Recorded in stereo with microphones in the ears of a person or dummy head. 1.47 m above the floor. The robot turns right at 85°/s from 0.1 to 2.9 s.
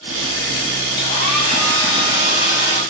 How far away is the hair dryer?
About 1.4 m.